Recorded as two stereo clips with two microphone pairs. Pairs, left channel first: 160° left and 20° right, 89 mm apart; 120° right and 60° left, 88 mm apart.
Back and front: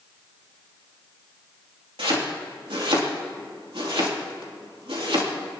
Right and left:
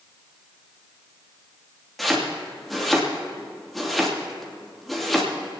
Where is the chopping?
35° right, 2.5 m.